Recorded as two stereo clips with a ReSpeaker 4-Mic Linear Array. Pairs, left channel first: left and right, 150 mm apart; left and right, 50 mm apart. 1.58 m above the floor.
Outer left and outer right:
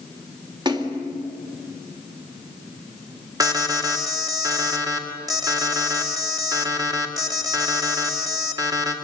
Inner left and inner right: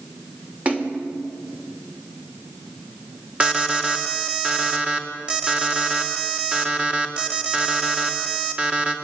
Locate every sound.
0.7 s a splash: 30° right (ahead or behind), 2.5 m
3.4 s an alarm: 25° right (ahead or behind), 2.5 m